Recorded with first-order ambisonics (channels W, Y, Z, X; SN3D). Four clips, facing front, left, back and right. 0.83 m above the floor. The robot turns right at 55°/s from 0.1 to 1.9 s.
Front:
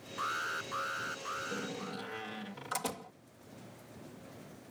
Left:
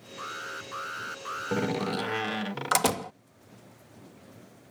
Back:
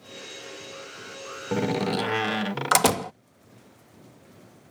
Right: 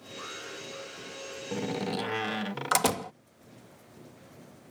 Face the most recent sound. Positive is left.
turn(degrees=175)